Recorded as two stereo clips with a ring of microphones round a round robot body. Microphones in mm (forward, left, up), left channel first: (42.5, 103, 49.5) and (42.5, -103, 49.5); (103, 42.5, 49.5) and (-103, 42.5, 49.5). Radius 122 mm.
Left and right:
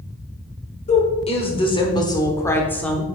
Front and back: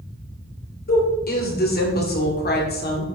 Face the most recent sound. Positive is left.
turn(degrees=5)